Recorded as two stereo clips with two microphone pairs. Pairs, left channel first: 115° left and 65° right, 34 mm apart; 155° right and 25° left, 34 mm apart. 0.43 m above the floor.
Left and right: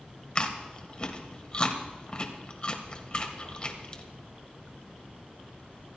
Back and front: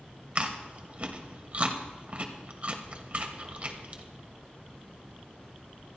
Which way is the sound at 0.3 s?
65° left.